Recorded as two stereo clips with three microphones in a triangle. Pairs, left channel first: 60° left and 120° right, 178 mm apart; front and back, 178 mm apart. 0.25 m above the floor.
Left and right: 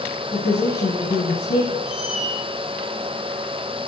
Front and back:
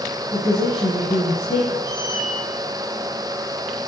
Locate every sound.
0.3 s a woman speaking: 70° left, 3 m
1.8 s a squeak: 155° left, 3 m